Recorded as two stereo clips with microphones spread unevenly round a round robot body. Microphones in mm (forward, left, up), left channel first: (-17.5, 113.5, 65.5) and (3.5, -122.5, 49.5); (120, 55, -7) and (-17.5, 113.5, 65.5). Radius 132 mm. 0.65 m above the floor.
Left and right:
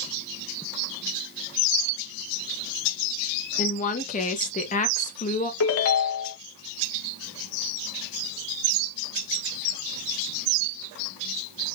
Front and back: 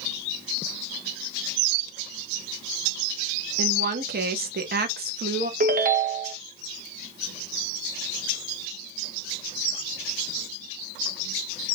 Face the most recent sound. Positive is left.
turn(degrees=125)